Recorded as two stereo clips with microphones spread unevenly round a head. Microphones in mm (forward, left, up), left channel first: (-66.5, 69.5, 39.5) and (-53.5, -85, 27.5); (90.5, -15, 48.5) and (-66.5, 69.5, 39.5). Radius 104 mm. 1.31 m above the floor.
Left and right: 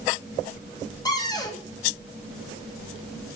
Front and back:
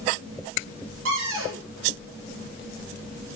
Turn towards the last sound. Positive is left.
turn(degrees=160)